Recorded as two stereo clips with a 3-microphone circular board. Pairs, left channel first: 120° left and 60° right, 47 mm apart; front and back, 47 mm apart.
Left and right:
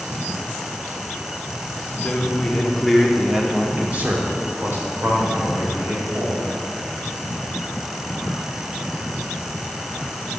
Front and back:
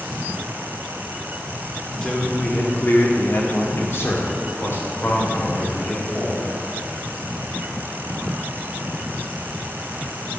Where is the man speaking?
65° left, 2.5 m; by 6.5 s 50° right, 4.5 m.